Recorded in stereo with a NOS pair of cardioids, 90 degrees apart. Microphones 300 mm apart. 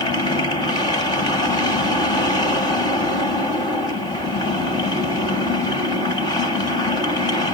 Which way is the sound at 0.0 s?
15° left.